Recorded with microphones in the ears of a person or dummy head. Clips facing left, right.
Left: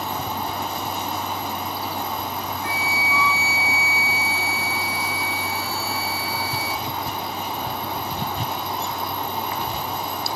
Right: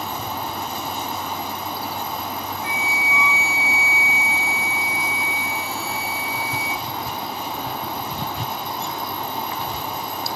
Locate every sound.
2.6 s a flute: 20° right (ahead or behind), 1.1 m